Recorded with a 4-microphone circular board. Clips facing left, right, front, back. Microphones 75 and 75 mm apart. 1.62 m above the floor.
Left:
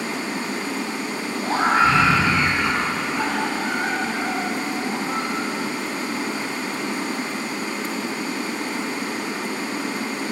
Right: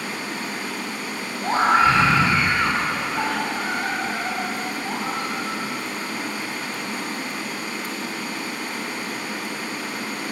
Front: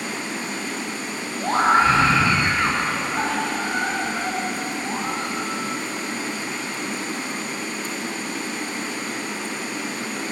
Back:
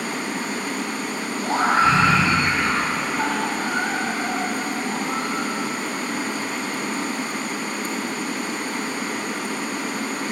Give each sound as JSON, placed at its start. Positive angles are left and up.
{"t": 0.0, "sound": "running water", "azimuth_deg": 150, "distance_m": 2.5}
{"t": 1.4, "sound": "a scream", "azimuth_deg": -45, "distance_m": 6.0}